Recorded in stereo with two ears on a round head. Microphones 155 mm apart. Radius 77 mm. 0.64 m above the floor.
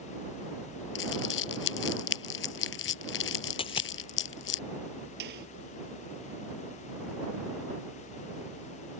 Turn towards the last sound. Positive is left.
turn(degrees=-70)  # may be behind; listen again after turning